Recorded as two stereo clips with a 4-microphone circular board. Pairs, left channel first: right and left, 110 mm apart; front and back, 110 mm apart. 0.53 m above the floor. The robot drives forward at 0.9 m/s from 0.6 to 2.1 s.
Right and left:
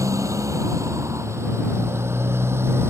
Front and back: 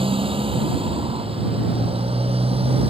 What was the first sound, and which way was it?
A motorcycle, 150° left.